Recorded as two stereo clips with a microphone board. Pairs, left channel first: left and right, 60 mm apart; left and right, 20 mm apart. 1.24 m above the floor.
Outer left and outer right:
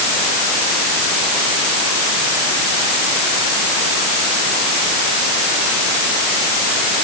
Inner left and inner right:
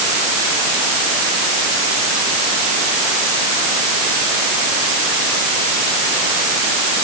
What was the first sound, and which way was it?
Only background noise.